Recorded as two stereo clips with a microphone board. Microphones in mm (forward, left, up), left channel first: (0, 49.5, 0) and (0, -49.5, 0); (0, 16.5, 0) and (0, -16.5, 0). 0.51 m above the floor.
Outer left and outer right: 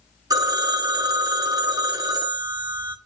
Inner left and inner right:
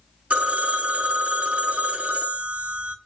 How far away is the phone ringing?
About 0.6 m.